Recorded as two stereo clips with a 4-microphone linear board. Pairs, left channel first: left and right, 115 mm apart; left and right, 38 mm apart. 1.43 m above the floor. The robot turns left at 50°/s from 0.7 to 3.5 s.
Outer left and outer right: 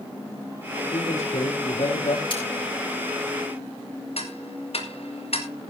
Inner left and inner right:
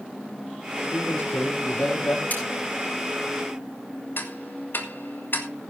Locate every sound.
0.9 s a man speaking: 115° left, 4 m; by 2.2 s 50° left, 4 m
2.3 s cutlery clinking: 45° left (ahead or behind), 5 m; by 2.4 s 40° left (ahead or behind), 5 m
4.2 s ticking: 60° left (ahead or behind), 1.6 m